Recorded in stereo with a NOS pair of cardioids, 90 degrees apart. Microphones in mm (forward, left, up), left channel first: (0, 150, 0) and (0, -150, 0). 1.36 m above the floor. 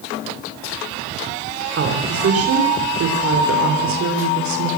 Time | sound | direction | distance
1.8 | a woman speaking | 45° right | 4.5 m